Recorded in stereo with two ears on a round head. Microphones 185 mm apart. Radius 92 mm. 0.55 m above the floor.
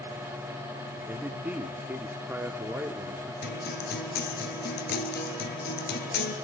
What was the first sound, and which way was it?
A man speaking, 10° right (ahead or behind).